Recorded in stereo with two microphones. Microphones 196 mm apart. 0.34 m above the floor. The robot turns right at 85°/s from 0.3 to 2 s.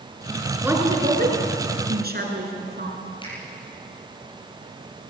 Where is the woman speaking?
5° right (ahead or behind), 4.5 m; by 3.0 s 55° right (ahead or behind), 4.5 m.